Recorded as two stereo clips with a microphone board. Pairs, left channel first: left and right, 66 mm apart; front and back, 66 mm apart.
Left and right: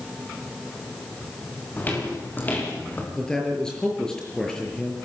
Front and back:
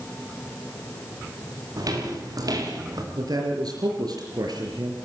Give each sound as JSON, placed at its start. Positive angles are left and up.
{"t": 1.8, "sound": "footsteps", "azimuth_deg": 155, "distance_m": 9.0}
{"t": 3.1, "sound": "a man speaking", "azimuth_deg": 170, "distance_m": 6.0}